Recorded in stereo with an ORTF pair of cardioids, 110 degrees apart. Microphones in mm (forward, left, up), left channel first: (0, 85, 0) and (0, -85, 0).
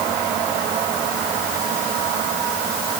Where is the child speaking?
I don't hear a child speaking.